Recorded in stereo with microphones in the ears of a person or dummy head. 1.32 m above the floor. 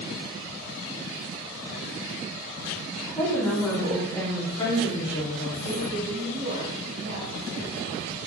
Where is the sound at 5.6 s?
55° right (ahead or behind), 3.5 m.